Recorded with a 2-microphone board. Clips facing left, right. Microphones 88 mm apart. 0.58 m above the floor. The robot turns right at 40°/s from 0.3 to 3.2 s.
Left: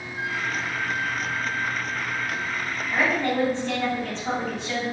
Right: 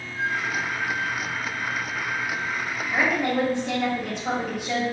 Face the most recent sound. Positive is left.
turn(degrees=-10)  # may be behind; listen again after turning